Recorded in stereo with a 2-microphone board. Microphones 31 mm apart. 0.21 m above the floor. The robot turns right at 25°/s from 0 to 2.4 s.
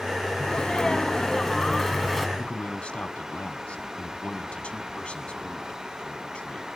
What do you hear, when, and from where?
0.4 s a sneeze: 135° left, 1.7 m; by 2.3 s straight behind, 1.7 m
2.4 s a man speaking: 40° left (ahead or behind), 1.4 m